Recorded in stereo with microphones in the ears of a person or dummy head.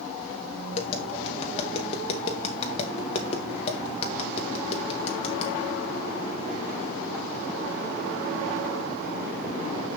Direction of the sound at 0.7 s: 35° left (ahead or behind).